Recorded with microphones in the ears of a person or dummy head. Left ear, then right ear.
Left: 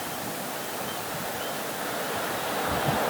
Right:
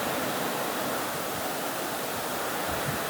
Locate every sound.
Only background noise.